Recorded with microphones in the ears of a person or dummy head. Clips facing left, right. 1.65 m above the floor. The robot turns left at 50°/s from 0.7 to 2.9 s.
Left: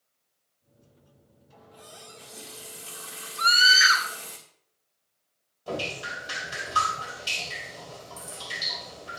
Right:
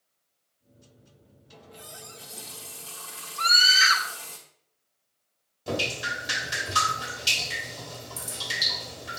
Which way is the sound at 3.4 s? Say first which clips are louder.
Left 2 dB; 5° left (ahead or behind).